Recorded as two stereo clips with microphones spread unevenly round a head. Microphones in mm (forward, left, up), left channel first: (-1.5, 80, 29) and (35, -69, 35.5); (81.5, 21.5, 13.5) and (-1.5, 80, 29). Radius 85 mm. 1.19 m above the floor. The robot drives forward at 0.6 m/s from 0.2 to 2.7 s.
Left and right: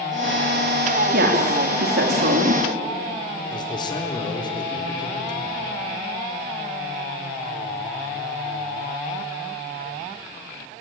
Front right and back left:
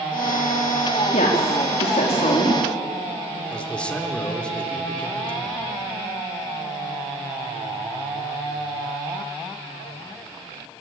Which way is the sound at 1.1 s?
60° right.